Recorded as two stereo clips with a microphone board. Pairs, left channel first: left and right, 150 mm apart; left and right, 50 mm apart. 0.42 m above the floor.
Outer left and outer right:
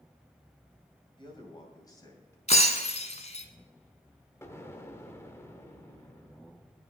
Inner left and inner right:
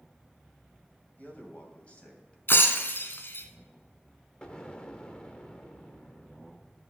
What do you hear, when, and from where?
1.2 s a man speaking: 35° left (ahead or behind), 2.5 m; by 2.4 s 20° left (ahead or behind), 2.5 m
2.5 s breaking glass: 50° left (ahead or behind), 1.2 m
4.4 s an explosion: 15° left (ahead or behind), 0.9 m